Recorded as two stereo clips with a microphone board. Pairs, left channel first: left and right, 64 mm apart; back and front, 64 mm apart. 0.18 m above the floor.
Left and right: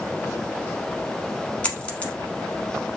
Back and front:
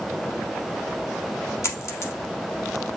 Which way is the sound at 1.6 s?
155° left.